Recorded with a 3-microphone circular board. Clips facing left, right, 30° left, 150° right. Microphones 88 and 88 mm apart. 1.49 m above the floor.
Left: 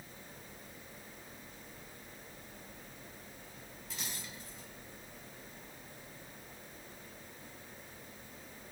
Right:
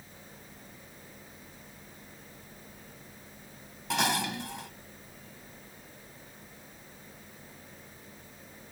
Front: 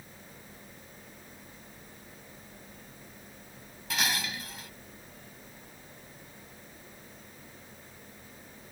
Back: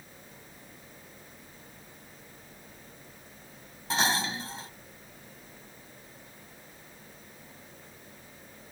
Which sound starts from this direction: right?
Dishes clattering, at 3.9 s.